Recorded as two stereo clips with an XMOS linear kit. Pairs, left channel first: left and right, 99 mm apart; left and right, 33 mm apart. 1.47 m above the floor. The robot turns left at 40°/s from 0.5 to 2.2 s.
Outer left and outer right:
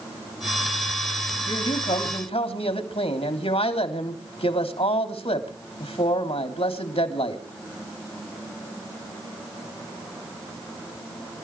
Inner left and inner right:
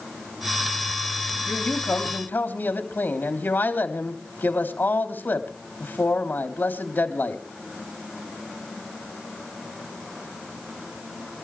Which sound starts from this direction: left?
A man speaking, at 1.5 s.